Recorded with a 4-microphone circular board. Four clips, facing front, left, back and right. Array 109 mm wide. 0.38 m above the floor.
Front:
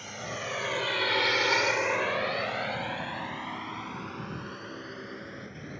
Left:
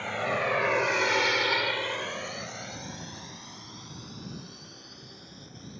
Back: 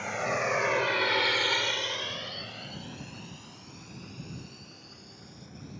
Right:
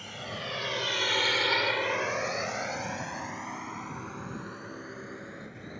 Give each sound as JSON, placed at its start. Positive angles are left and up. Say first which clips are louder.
{"t": 0.0, "sound": "a drone", "louder": "left 10 dB, back 7 dB", "azimuth_deg": 130}